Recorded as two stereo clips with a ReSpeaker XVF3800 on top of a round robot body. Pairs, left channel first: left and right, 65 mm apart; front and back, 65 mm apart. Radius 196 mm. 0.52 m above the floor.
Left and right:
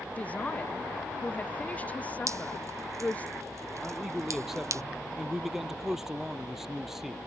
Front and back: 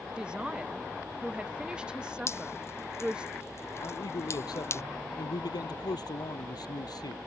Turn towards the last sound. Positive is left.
turn(degrees=-5)